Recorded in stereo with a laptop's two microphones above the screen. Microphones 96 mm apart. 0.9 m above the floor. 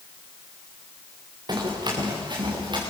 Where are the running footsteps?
50° right (ahead or behind), 7 m; by 2.8 s 55° right (ahead or behind), 7.5 m.